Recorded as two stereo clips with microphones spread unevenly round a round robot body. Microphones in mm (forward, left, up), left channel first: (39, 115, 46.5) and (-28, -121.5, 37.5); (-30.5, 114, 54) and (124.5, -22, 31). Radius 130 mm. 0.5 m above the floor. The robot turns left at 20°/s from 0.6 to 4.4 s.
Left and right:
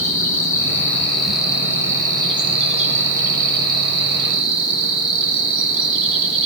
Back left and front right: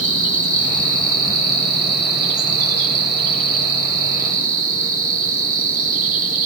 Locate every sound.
0.0 s an insect: 5° right, 1.9 m; by 6.5 s 80° right, 1.9 m